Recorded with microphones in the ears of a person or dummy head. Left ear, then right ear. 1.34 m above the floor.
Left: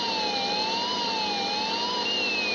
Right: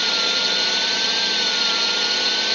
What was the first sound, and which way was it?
A drone, 55° right (ahead or behind).